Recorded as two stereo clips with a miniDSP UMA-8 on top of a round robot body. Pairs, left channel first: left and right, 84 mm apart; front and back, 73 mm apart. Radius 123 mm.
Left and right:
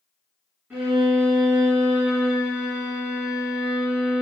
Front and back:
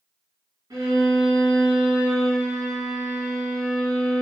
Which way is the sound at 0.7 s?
155° right.